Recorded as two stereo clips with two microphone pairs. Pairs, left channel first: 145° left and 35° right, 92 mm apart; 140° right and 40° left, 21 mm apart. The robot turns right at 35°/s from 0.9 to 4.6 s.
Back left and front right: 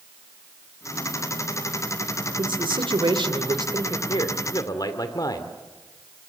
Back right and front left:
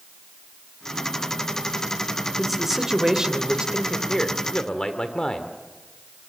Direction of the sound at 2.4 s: 50° right.